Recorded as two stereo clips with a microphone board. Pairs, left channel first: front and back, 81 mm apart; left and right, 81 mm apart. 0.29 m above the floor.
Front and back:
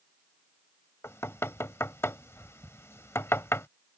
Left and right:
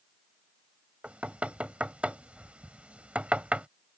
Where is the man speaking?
No man speaking in this recording.